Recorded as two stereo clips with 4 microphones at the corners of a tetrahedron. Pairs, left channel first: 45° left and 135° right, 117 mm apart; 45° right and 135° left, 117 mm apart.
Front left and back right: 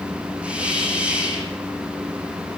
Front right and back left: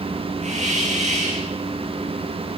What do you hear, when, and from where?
0.4 s a hiss: 145° left, 8 m